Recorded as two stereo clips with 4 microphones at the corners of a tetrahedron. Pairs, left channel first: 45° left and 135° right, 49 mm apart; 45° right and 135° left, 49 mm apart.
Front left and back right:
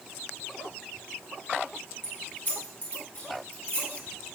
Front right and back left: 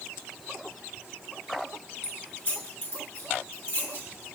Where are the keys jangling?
Straight ahead, 2.5 m; by 4.2 s 10° right, 3.5 m.